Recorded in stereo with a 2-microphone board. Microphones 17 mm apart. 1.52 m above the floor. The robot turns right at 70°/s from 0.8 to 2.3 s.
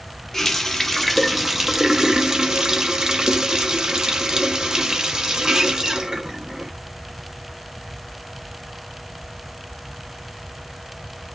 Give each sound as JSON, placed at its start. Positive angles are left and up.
{"t": 0.3, "sound": "a running tap", "azimuth_deg": 150, "distance_m": 0.6}